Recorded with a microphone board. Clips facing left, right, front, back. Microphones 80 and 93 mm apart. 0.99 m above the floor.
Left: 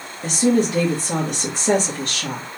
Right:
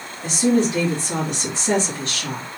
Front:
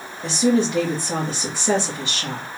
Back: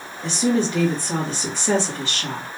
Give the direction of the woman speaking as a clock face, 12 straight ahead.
9 o'clock.